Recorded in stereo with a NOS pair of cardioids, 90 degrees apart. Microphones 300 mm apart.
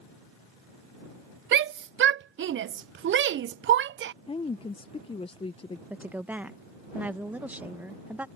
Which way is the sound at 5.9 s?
5° right.